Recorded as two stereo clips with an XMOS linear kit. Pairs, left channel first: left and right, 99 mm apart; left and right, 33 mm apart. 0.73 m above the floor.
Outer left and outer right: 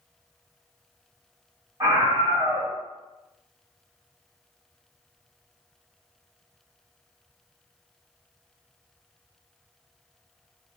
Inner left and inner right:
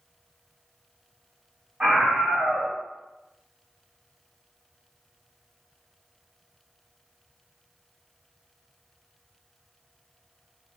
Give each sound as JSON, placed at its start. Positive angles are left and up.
{"t": 1.8, "sound": "a scream", "side_deg": -45, "distance_m": 1.4}